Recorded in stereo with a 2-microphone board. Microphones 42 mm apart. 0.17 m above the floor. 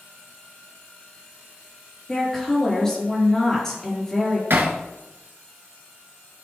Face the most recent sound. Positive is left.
turn(degrees=-60)  # may be behind; listen again after turning